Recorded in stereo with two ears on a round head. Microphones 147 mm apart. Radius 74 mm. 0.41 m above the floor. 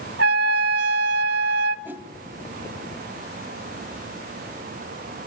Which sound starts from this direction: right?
A trumpet, at 0.2 s.